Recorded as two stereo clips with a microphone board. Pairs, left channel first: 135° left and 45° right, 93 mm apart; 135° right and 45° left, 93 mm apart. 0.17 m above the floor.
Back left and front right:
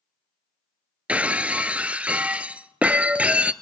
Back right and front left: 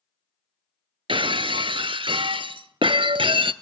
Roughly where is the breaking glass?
Ahead left.